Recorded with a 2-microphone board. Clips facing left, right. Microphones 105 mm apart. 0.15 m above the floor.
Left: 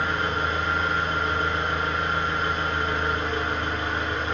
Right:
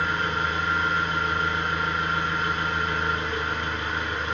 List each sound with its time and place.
0.0 s an engine running: 35° left (ahead or behind), 1.5 m